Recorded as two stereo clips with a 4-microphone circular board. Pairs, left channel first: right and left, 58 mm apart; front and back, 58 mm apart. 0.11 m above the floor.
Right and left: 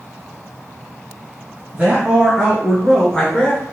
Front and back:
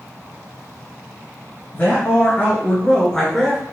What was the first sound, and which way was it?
A man speaking, 35° left.